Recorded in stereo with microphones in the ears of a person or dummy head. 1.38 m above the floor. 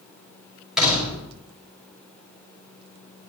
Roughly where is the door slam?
Centre.